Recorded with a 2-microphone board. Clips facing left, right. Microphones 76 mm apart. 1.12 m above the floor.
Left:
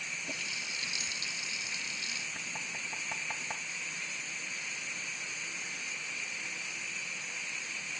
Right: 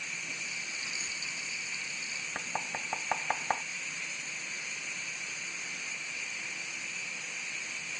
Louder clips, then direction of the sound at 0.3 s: Left 1 dB; 75° left (ahead or behind).